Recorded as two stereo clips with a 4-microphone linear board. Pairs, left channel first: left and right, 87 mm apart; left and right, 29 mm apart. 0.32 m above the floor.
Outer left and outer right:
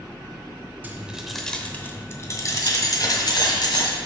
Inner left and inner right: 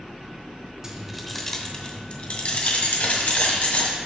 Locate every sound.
0.8 s keys jangling: 20° right (ahead or behind), 0.9 m; by 4.0 s 60° left (ahead or behind), 2 m